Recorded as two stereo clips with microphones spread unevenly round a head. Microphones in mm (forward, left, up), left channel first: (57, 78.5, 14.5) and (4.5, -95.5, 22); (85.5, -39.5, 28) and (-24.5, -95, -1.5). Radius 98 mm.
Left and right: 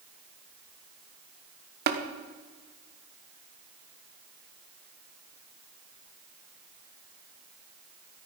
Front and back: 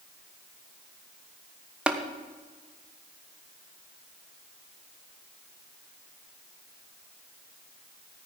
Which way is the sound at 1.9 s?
75° right.